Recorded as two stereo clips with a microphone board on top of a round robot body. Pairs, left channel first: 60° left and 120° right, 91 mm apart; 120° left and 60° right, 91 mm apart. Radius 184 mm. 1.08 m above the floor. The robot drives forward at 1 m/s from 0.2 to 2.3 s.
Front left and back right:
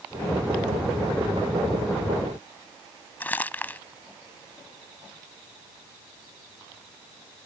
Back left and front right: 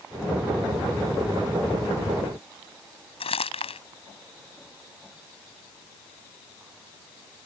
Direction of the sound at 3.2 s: 135° left.